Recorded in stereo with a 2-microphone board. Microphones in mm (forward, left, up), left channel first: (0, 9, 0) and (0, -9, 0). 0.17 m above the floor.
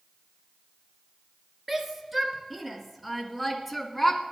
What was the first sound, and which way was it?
A shout, 10° right (ahead or behind).